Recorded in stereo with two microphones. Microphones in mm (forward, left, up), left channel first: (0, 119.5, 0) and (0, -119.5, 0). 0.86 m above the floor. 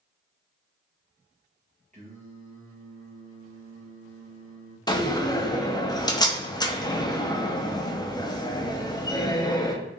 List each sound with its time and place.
1.9 s singing: 30° right (ahead or behind), 1.1 m
4.9 s a door slam: 15° left (ahead or behind), 0.6 m